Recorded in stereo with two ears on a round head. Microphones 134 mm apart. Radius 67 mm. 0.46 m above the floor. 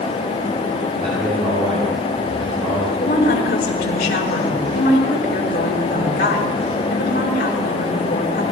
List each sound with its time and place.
1.0 s a man speaking: 35° right (ahead or behind), 8 m
3.0 s a woman speaking: 65° left (ahead or behind), 6 m